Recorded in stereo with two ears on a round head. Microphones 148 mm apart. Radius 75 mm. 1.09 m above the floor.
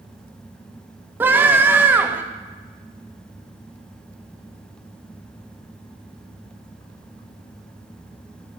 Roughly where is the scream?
Centre.